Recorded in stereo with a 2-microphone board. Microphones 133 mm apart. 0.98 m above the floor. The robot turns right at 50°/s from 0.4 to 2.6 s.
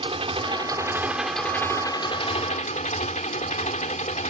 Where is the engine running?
45° right; by 4.3 s 65° left.